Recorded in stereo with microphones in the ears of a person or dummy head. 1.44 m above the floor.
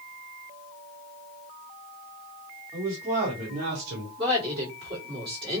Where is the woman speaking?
25° right (ahead or behind), 2.5 m.